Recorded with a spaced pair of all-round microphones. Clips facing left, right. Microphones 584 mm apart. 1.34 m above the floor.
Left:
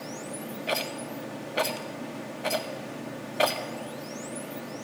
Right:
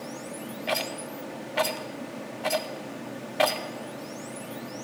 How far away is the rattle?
About 0.8 m.